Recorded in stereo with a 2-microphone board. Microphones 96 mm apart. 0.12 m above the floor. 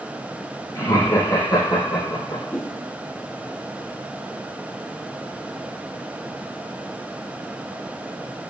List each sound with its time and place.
0.8 s laughter: 40° left (ahead or behind), 2.0 m; by 2.4 s 65° left (ahead or behind), 4 m
2.5 s a whoosh: 15° left (ahead or behind), 1.6 m